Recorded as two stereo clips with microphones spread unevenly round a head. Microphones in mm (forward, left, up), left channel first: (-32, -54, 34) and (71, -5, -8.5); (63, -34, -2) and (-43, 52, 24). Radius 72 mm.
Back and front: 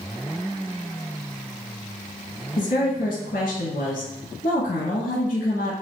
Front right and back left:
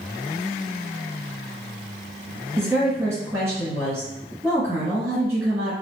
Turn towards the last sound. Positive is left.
turn(degrees=-145)